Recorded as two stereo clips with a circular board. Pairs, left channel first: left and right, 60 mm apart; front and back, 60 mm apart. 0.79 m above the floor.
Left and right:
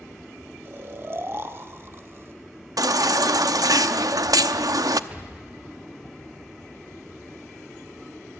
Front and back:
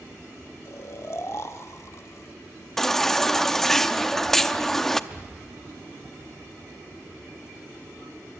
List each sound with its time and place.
0.7 s snoring: 40° right, 0.9 m
2.8 s a baby crying: 85° right, 0.7 m
5.1 s an explosion: 130° right, 1.0 m